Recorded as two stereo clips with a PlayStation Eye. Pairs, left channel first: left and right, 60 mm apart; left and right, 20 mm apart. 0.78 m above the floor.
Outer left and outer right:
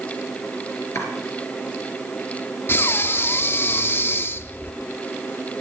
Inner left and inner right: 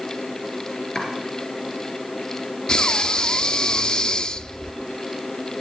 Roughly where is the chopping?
Left.